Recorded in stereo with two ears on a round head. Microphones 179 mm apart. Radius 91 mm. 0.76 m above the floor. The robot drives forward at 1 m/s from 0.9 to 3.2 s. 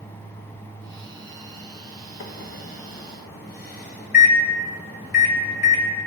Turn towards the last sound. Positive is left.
turn(degrees=50)  # may be behind; listen again after turning